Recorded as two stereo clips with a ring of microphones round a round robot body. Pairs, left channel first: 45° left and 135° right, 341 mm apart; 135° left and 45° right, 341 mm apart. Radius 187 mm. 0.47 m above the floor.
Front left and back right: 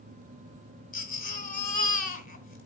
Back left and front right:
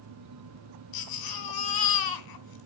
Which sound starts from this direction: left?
A baby crying, at 0.9 s.